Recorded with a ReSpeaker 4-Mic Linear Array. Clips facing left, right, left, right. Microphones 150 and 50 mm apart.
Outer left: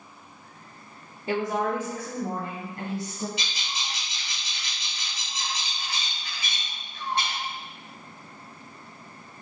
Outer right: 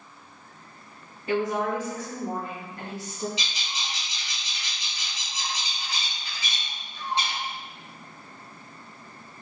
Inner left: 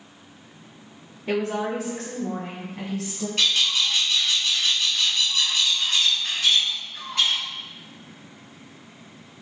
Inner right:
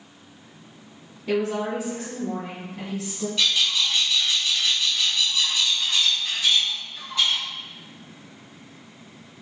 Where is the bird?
60° left (ahead or behind), 1.9 m.